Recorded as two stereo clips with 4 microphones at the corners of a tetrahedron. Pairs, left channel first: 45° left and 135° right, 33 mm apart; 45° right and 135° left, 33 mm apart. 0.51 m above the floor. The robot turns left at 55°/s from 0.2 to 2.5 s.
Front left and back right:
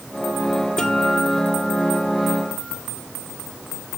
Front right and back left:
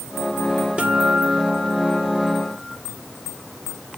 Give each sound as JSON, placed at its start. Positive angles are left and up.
{"t": 0.8, "sound": "a guitar", "azimuth_deg": 105, "distance_m": 1.8}